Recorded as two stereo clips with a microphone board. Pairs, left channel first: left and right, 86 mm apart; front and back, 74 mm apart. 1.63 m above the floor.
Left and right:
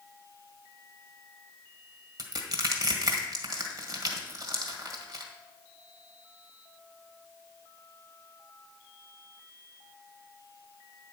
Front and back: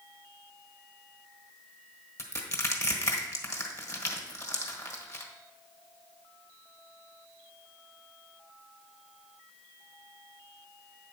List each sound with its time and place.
2.2 s crushing: 50° right, 1.6 m